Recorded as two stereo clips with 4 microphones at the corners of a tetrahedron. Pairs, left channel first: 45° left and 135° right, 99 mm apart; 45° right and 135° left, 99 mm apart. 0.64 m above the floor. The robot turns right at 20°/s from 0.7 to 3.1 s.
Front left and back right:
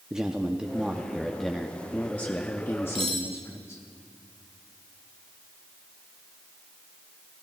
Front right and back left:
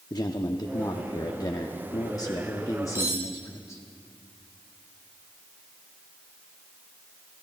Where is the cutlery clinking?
160° right, 1.8 m.